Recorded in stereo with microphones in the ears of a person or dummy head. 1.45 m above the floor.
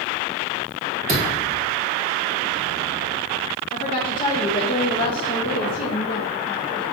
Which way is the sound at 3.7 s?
40° left (ahead or behind).